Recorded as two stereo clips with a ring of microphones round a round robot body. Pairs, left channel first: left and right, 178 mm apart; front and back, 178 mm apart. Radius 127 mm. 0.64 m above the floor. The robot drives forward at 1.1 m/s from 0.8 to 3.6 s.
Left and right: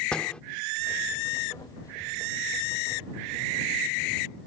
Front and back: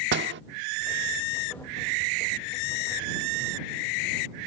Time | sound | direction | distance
0.1 | a door slam | 175° left | ?